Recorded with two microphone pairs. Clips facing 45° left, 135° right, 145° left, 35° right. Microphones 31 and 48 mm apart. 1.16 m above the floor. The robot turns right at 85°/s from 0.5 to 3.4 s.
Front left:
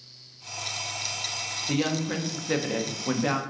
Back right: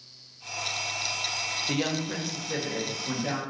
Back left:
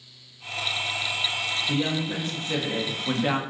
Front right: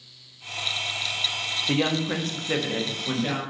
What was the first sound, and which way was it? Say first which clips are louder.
A woman speaking: front left 5 dB, front right 5 dB; 55° right.